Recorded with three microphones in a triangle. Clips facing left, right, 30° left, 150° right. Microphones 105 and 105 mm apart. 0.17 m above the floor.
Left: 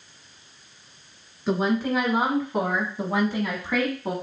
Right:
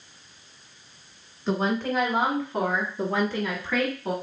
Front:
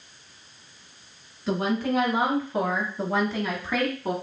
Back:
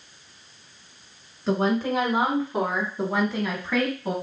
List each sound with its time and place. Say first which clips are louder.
1.5 s a woman speaking: left 2 dB, back 2 dB; 170° left, 1.6 m; by 4.1 s 55° left, 1.2 m